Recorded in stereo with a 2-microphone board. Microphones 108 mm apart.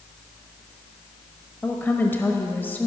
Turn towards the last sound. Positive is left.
turn(degrees=20)  # may be behind; listen again after turning